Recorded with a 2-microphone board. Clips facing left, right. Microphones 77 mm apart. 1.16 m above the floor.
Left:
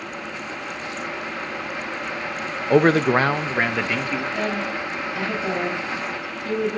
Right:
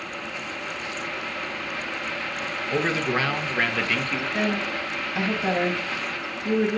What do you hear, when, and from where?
2.7 s a man speaking: 65° left (ahead or behind), 0.7 m; by 4.2 s 5° left (ahead or behind), 1.4 m
4.3 s a woman speaking: 25° right (ahead or behind), 5.5 m